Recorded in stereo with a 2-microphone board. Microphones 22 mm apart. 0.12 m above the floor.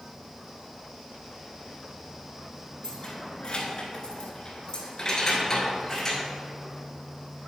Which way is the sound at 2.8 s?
40° left (ahead or behind).